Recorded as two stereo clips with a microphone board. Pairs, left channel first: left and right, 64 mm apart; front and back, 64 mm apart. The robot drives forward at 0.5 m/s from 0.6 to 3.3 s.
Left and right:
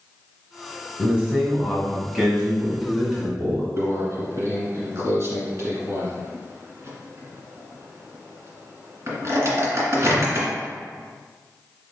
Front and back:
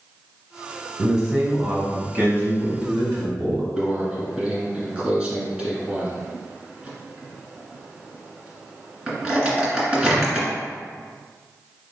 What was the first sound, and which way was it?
A man speaking, 115° right.